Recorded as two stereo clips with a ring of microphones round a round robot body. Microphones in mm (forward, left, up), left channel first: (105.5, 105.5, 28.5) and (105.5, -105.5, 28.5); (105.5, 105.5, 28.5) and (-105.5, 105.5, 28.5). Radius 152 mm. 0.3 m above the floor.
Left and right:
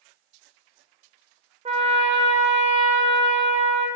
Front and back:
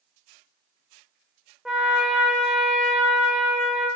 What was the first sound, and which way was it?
A trumpet, 95° right.